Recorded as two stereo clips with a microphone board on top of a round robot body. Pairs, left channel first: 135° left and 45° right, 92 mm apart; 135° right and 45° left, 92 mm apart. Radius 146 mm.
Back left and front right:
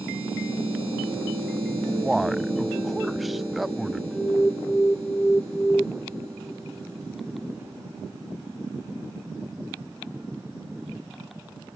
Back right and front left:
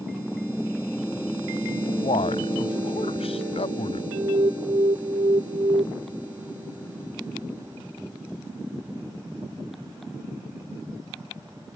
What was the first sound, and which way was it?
A man speaking, 135° right.